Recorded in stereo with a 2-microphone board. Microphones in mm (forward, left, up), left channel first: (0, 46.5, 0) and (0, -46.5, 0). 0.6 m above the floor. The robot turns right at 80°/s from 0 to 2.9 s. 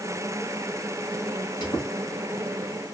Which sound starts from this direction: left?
A squeak, at 1.6 s.